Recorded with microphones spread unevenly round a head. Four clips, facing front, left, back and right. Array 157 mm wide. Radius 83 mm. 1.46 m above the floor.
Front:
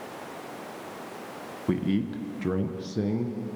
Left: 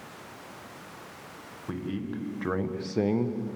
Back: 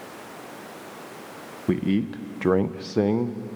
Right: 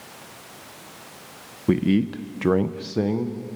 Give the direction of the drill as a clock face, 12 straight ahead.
I don't hear a drill.